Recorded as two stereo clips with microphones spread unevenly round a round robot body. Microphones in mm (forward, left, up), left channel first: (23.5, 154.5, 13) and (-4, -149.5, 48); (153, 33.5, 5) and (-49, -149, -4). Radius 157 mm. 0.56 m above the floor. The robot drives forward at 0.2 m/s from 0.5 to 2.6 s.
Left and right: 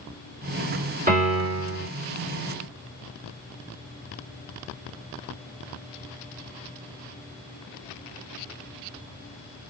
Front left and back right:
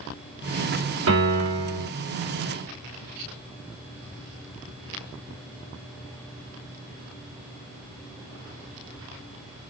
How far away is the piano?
About 2 m.